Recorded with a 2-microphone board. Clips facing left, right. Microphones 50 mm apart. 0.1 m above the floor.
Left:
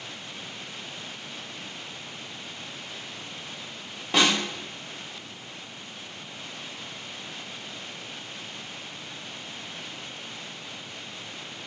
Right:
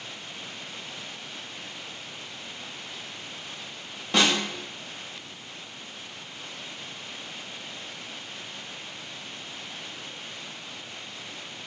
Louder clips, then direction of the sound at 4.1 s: Even; 5° left (ahead or behind).